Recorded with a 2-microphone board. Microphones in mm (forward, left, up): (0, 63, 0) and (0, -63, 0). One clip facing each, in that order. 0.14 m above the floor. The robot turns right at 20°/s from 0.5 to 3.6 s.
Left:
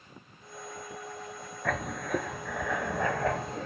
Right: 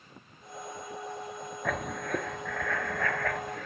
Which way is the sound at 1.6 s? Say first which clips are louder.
Left 1 dB; 5° right.